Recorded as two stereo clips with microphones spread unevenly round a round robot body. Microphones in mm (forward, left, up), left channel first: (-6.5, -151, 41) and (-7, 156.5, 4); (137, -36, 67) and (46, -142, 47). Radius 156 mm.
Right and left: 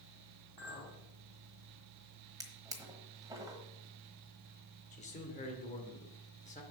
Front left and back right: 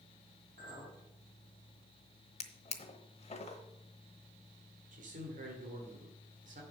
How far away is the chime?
No chime in this recording.